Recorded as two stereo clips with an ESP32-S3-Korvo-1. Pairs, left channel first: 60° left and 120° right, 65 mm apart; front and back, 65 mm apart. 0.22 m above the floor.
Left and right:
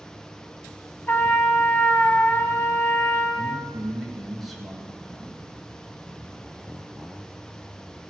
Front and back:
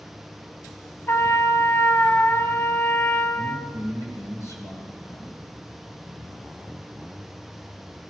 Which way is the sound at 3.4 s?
30° right.